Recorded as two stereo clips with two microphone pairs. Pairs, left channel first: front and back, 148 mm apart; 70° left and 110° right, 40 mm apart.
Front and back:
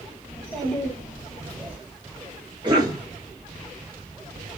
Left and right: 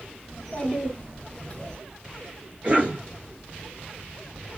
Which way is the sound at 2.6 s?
140° right.